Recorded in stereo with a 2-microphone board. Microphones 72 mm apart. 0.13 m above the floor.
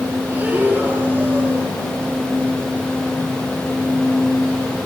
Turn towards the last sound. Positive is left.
turn(degrees=-25)  # may be behind; listen again after turning